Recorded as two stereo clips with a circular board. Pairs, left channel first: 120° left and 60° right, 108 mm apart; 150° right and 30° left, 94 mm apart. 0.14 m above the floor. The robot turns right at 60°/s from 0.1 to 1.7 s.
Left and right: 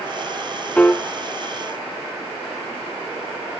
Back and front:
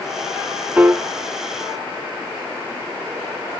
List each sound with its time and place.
0.8 s a piano: 60° left, 0.5 m; by 1.0 s 75° left, 0.5 m